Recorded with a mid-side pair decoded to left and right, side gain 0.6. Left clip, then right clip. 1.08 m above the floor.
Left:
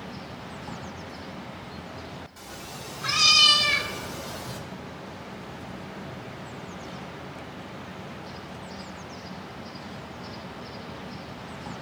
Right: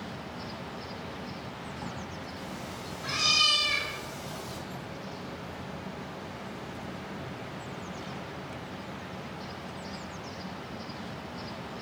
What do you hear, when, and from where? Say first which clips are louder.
2.4 s a cat meowing: even; 65° left, 2.5 m; by 4.6 s 20° left, 1.5 m